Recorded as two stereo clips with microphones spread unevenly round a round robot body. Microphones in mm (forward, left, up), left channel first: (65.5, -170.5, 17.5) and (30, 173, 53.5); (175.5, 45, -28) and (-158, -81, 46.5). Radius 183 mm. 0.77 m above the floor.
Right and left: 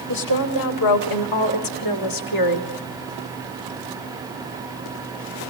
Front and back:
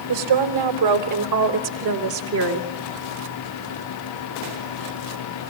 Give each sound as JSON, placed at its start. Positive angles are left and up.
{"t": 0.1, "sound": "a woman speaking", "azimuth_deg": -120, "distance_m": 3.5}